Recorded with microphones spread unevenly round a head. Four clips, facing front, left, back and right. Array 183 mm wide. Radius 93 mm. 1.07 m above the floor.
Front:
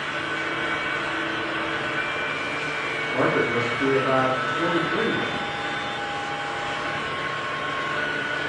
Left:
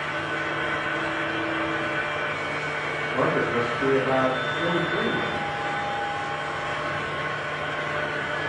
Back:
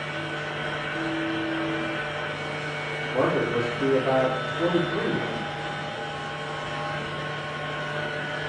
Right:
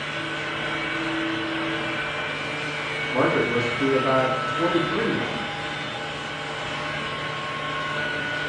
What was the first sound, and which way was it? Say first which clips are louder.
A fan: left 2 dB, front 3 dB; 25° left.